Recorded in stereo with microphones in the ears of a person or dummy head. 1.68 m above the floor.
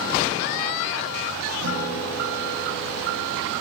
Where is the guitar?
75° right (ahead or behind), 9.5 m.